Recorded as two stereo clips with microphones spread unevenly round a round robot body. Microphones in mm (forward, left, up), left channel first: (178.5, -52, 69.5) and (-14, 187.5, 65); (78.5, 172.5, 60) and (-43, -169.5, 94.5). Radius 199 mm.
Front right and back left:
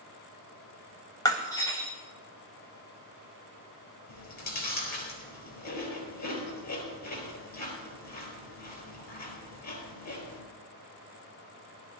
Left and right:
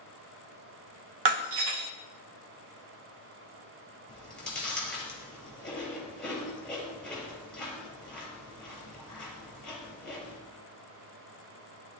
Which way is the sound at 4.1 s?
15° right.